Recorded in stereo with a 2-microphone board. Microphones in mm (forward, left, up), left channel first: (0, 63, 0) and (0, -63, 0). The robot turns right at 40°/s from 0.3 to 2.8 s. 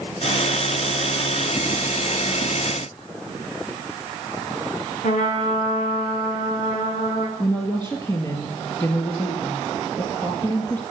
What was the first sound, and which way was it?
A trumpet, 80° left.